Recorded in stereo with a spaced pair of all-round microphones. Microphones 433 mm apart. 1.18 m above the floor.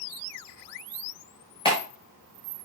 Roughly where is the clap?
Centre.